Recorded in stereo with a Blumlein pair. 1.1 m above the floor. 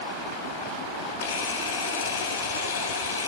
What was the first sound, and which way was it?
A camera shutter, 65° left.